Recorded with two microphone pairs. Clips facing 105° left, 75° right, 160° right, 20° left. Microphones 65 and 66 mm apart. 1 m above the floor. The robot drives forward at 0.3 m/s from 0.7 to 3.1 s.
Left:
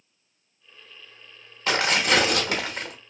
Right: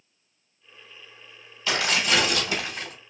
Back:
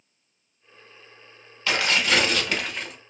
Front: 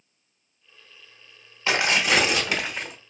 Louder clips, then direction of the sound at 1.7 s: Left 2 dB, front 1 dB; 80° left.